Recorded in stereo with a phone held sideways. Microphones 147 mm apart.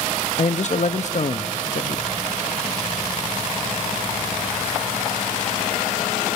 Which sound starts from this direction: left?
A man speaking, at 0.4 s.